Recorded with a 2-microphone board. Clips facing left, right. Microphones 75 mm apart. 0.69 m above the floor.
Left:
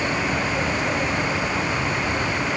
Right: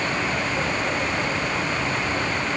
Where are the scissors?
No scissors in this recording.